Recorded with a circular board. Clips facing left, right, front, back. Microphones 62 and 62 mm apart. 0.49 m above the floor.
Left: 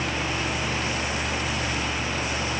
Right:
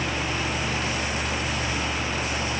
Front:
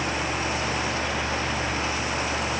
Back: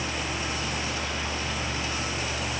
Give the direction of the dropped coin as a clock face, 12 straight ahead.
I don't hear a dropped coin.